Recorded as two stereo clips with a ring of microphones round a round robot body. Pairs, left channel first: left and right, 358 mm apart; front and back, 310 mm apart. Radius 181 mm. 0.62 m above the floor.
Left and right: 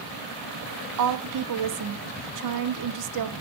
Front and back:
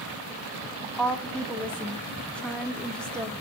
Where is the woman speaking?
85° right, 1.1 m.